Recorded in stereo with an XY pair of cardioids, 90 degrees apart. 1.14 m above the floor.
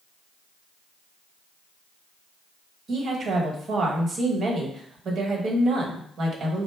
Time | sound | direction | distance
2.9 | a woman speaking | 60° right | 1.2 m